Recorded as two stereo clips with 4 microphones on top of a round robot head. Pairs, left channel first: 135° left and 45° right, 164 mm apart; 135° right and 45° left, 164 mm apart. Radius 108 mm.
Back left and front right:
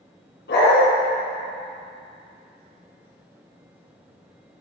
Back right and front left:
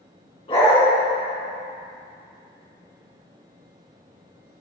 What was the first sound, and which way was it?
A dog barking, 165° left.